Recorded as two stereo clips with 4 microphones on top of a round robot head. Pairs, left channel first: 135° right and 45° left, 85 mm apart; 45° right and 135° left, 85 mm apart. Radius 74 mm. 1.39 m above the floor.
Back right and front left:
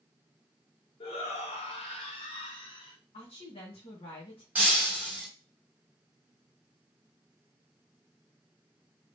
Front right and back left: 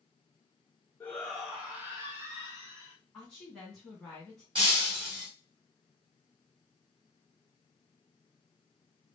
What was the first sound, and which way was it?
A shout, 120° right.